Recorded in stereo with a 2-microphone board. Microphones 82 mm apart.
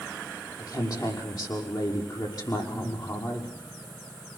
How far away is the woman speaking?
About 6 m.